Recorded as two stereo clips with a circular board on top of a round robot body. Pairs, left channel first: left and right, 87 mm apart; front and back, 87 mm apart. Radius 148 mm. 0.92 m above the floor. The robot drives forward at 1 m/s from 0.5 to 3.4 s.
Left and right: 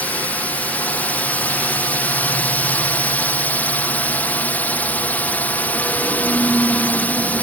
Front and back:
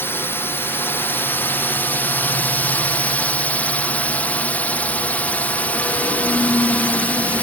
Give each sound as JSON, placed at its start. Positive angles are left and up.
{"t": 0.0, "sound": "a drone", "azimuth_deg": 35}